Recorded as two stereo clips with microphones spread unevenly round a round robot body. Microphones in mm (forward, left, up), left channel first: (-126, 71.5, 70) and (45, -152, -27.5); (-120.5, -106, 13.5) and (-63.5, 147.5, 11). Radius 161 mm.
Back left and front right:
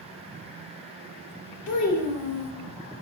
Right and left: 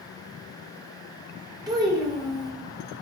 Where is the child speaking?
150° left, 0.6 m.